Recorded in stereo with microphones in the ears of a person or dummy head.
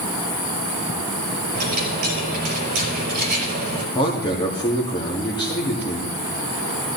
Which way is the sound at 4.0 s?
25° left (ahead or behind).